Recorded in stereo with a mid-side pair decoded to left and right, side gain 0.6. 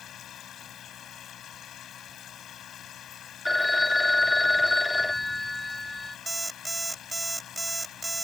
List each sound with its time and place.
0.0 s a machine running: 50° left
3.5 s a phone ringing: 15° left
6.3 s an alarm clock: 10° right